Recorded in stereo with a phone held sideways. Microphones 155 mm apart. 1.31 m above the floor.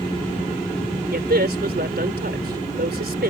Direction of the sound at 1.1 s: 75° right (ahead or behind).